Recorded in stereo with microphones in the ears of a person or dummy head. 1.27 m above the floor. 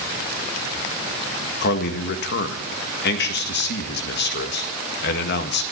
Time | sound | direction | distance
1.6 | a man speaking | 60° left (ahead or behind) | 1.8 m